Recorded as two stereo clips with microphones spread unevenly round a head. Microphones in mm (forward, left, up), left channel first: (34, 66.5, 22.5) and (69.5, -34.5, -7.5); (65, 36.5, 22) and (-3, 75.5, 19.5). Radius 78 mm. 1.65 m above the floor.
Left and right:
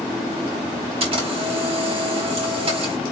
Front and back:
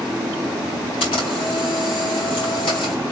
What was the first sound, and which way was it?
A camera shutter, 45° right.